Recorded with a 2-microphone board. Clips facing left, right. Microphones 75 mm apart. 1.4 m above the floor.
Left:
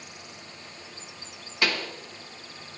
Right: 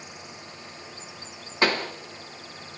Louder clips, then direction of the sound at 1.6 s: Right 4 dB; 35° right (ahead or behind).